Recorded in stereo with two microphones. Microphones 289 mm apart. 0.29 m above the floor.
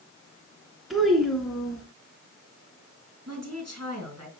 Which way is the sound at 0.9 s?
Centre (ahead or behind).